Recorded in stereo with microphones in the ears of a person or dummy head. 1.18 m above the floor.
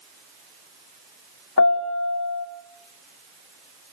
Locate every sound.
1.6 s a piano: 70° left (ahead or behind), 2 m